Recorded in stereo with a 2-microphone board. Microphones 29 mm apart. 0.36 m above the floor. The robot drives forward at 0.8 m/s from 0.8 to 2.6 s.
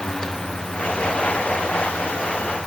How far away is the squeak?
I don't hear a squeak.